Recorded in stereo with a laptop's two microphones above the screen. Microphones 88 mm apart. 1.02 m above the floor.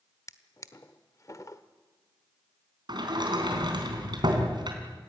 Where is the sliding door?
55° right (ahead or behind), 3.5 m.